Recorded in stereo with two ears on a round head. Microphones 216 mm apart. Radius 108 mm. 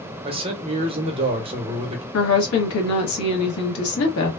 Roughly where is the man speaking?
Right.